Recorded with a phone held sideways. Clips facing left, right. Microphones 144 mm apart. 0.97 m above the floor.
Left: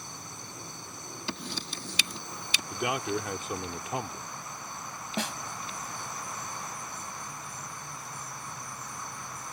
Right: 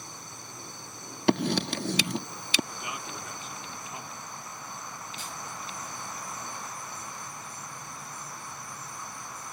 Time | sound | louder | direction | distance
1.3 | writing | right 15 dB | 65° right (ahead or behind) | ?
2.7 | a man speaking | left 9 dB | 75° left (ahead or behind) | ?
5.2 | a snare drum | left 14 dB | 80° left | ?